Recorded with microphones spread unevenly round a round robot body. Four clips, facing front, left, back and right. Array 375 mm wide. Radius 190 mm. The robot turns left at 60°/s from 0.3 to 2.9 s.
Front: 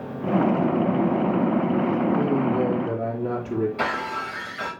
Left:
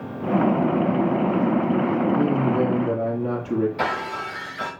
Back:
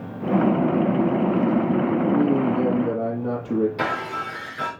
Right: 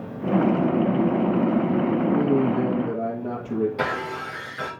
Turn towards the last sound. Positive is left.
turn(degrees=-145)